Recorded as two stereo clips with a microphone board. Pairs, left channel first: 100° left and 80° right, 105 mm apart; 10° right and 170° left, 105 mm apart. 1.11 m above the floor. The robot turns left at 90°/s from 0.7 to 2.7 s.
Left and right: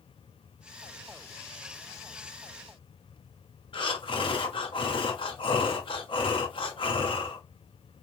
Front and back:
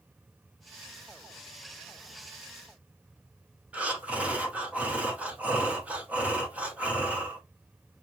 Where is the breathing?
95° left, 0.6 m.